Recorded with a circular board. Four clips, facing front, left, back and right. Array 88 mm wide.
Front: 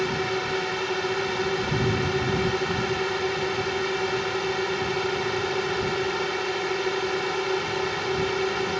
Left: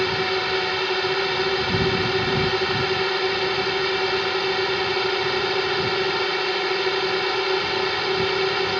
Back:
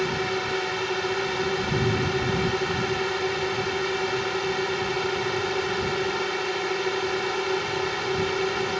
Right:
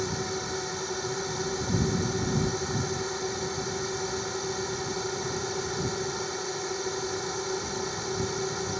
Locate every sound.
0.0 s a drone: 90° left